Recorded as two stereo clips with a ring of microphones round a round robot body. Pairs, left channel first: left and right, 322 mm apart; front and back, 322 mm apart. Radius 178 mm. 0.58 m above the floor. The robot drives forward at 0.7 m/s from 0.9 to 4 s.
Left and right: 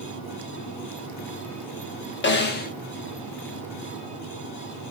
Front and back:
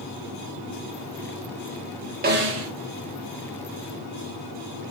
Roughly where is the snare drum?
Behind left.